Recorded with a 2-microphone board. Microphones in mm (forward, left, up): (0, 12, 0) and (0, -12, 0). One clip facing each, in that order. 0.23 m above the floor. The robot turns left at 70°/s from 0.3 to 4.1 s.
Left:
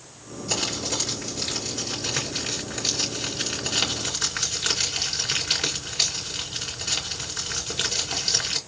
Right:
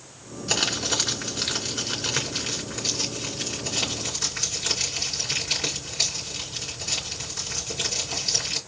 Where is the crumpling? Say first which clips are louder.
Right 3 dB; 40° right, 3 m; by 8.6 s 70° left, 3 m.